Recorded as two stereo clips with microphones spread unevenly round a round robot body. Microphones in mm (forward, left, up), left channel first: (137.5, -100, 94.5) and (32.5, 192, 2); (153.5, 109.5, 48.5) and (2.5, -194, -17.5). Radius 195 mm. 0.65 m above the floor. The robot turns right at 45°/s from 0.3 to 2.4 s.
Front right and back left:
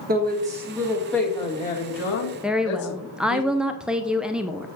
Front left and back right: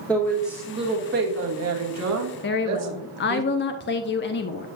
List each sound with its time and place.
0.1 s a woman speaking: 155° left, 1.4 m; by 3.4 s 110° right, 1.4 m
2.4 s a woman speaking: 85° left, 0.5 m